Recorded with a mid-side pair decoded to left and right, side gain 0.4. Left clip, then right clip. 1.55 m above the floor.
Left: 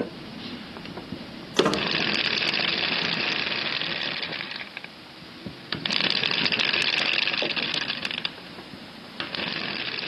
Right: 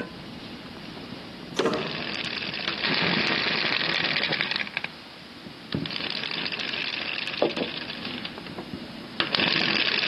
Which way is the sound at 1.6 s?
55° left.